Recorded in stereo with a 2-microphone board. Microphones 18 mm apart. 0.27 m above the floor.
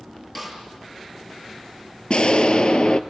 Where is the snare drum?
15° left (ahead or behind), 6.5 m.